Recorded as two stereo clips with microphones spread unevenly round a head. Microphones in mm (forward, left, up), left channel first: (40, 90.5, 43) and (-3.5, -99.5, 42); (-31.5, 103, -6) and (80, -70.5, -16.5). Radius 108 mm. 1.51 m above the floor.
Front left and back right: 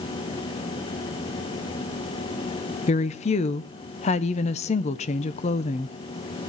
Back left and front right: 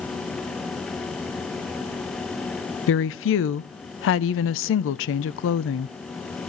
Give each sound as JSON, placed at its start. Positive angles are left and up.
{"t": 2.9, "sound": "a woman speaking", "azimuth_deg": 135, "distance_m": 0.6}